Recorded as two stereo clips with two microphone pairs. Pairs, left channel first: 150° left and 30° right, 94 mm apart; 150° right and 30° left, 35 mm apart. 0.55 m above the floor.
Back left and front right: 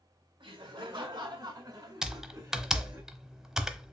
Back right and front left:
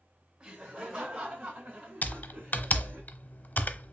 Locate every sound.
0.4 s laughter: 5° right, 2.0 m; by 3.0 s 40° left, 2 m
2.0 s typing on a keyboard: 115° right, 0.5 m